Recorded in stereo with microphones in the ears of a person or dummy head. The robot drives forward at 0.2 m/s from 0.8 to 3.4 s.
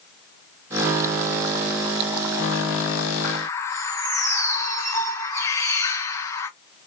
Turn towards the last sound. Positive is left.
turn(degrees=15)  # may be behind; listen again after turning